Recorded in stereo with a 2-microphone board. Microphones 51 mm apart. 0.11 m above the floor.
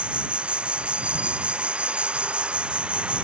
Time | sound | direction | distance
0.0 | an insect | 20° right (ahead or behind) | ?